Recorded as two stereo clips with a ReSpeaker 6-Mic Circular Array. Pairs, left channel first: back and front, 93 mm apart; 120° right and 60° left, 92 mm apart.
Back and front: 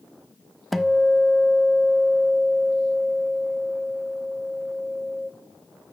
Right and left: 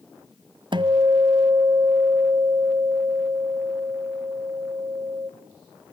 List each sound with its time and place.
0.7 s a guitar: 90° left, 0.5 m